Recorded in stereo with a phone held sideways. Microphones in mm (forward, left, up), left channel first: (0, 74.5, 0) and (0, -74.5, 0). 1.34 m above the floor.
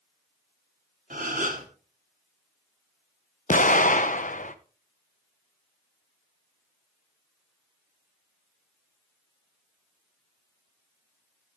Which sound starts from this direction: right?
A gasp, at 1.1 s.